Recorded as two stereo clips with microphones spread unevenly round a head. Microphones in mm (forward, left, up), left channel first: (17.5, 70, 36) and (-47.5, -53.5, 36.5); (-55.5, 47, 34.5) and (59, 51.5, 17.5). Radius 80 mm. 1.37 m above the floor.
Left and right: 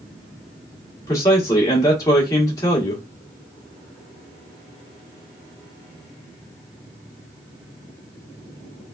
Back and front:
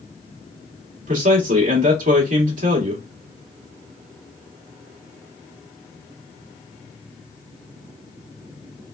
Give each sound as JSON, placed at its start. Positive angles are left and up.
{"t": 1.1, "sound": "a man speaking", "azimuth_deg": -10, "distance_m": 1.4}